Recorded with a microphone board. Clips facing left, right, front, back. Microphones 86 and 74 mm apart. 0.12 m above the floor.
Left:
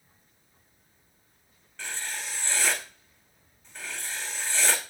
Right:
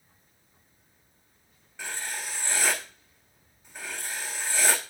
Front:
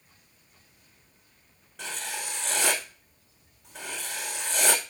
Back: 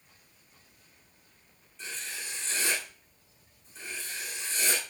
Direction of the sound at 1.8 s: 10° right.